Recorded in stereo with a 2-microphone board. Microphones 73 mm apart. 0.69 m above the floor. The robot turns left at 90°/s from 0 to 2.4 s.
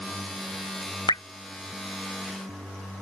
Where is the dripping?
75° left (ahead or behind); by 1.2 s 65° left (ahead or behind).